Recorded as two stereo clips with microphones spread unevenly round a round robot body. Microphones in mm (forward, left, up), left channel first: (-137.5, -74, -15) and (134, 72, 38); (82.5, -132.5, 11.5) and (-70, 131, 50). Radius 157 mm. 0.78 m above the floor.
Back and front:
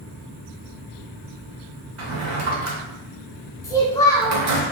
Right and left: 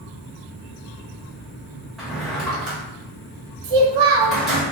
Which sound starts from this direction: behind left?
A child speaking, at 3.6 s.